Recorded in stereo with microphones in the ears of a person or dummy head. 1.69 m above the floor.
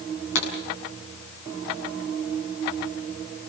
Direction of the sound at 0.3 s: 75° left (ahead or behind).